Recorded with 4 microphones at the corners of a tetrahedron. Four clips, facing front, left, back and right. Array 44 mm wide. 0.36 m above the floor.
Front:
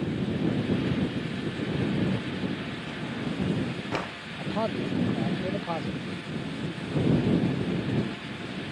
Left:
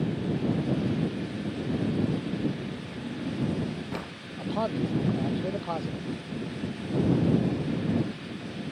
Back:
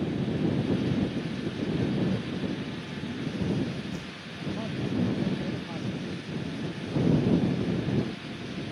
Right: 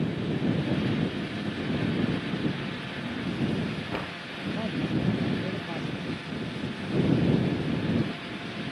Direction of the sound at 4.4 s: 45° left.